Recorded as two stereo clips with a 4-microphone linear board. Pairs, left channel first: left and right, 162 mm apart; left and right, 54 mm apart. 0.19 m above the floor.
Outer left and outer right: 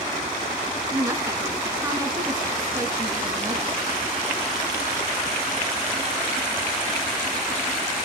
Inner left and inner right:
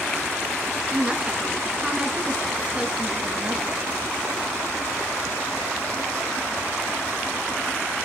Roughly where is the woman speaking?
Right.